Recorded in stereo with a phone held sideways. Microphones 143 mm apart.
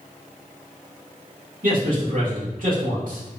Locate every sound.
1.6 s a man speaking: 70° right (ahead or behind), 2 m